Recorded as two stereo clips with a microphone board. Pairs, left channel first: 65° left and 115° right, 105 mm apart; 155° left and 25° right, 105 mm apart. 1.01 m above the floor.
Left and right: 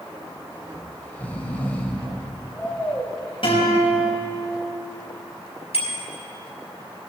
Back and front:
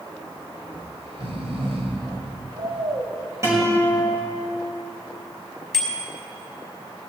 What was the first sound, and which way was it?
Snoring, 5° right.